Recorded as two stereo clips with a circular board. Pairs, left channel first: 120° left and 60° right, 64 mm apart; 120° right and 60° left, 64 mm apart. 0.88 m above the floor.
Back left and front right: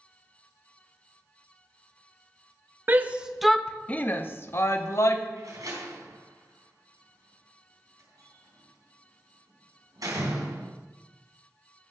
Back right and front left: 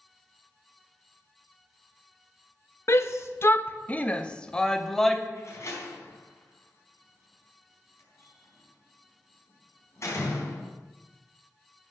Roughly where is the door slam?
Right.